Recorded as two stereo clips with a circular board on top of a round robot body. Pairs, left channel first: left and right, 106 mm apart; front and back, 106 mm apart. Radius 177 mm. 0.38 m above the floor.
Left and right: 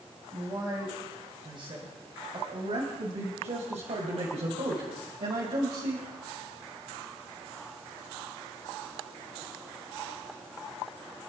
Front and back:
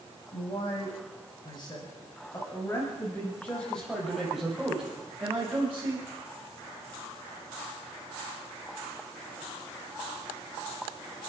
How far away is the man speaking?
About 4.5 m.